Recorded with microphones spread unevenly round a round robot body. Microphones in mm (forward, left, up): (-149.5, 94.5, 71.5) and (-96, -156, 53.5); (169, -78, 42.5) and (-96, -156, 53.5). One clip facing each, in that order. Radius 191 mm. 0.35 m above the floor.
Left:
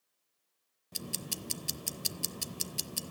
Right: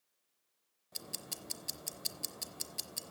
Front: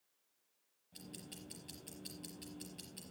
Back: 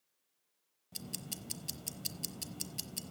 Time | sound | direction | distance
0.9 | ticking | 155° left | 0.8 m